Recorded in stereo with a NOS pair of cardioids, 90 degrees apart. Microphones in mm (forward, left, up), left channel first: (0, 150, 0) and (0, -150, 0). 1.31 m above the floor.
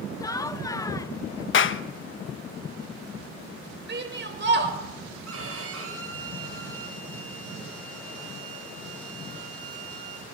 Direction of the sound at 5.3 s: 50° right.